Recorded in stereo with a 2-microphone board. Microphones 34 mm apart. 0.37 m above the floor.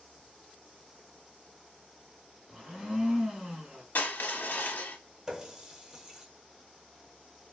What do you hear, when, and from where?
2.5 s a blender: 15° right (ahead or behind), 1.2 m
4.0 s crushing: 65° left (ahead or behind), 0.7 m
5.3 s a running tap: 15° right (ahead or behind), 0.5 m